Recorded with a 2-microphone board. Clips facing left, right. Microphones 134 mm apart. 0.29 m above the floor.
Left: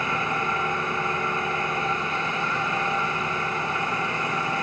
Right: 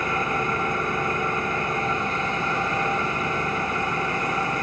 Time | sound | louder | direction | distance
0.0 | an engine running | right 2 dB | 45° right (ahead or behind) | 4 m